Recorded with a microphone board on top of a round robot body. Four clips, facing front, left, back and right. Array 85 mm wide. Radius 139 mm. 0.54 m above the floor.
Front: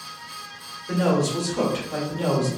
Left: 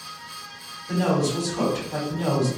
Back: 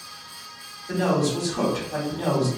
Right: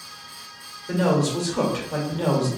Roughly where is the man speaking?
Ahead right.